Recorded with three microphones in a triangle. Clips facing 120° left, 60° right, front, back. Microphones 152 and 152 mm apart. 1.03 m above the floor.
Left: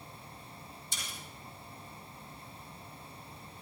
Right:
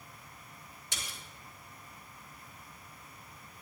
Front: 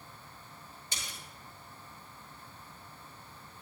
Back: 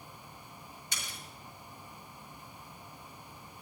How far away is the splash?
About 7 m.